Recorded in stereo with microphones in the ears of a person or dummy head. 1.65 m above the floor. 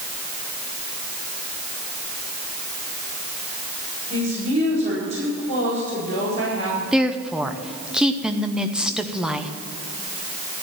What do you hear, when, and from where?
4.1 s a woman speaking: 40° right (ahead or behind), 5.5 m
6.9 s a woman speaking: centre (ahead or behind), 0.9 m